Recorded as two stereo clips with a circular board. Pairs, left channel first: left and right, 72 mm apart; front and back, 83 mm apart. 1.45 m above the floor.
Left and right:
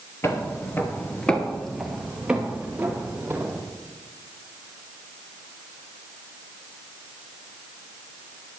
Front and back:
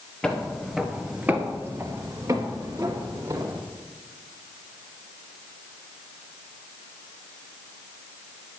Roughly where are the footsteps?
Left.